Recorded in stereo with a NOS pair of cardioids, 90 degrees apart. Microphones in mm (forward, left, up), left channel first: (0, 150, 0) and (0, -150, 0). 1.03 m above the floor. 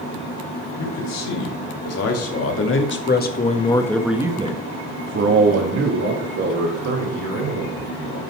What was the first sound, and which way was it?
A man speaking, 65° left.